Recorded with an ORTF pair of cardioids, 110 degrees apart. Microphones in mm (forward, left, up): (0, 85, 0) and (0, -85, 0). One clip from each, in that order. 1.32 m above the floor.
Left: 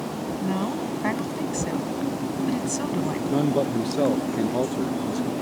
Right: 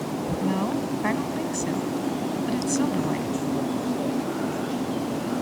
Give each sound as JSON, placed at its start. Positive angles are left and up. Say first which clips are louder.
{"t": 0.4, "sound": "a woman speaking", "louder": "right 1 dB", "azimuth_deg": -5}
{"t": 3.3, "sound": "a man speaking", "louder": "left 4 dB", "azimuth_deg": 65}